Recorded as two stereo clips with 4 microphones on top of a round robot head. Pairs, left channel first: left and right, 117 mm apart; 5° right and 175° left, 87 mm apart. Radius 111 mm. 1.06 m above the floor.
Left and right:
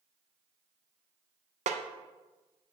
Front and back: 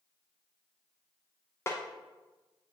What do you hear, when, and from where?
1.7 s a snare drum: 70° right, 0.5 m